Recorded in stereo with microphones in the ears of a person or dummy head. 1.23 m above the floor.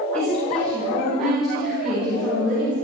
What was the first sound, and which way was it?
A woman speaking, 5° left (ahead or behind).